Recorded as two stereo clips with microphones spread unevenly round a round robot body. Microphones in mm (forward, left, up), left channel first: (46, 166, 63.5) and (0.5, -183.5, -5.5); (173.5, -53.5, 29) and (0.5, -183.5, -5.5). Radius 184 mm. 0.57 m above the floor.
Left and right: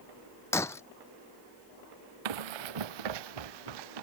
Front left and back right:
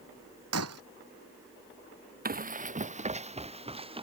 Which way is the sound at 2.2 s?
90° right.